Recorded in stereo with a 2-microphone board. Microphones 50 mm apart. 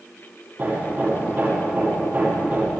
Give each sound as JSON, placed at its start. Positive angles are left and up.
{"t": 0.6, "sound": "hammering", "side_deg": -40, "distance_m": 8.5}